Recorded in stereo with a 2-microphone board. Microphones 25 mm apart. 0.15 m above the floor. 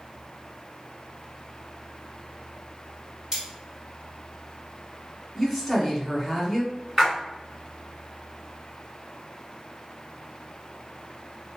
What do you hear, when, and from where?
3.3 s cutlery clinking: 25° right (ahead or behind), 2.0 m
5.3 s a woman speaking: 5° right (ahead or behind), 1.2 m
7.0 s a splash: 20° right (ahead or behind), 1.9 m